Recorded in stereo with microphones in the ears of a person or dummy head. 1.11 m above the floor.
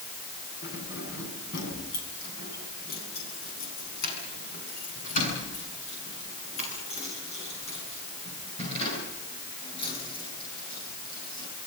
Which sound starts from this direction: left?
Keys jangling, at 0.6 s.